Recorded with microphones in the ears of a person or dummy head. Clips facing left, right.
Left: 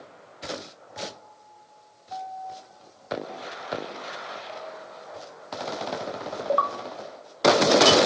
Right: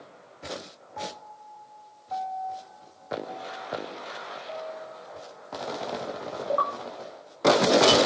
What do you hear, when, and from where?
1.0 s a piano: 60° right (ahead or behind)